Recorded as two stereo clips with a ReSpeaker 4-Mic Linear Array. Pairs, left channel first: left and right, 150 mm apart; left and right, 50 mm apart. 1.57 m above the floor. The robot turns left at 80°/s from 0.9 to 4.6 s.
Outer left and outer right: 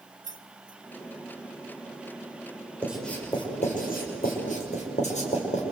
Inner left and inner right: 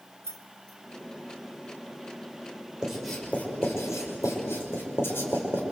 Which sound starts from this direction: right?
Keys jangling, at 0.2 s.